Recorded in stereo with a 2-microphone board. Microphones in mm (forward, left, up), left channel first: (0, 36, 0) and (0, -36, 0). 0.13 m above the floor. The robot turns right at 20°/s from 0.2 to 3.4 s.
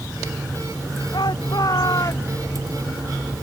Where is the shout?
70° left (ahead or behind); by 2.5 s 45° left (ahead or behind).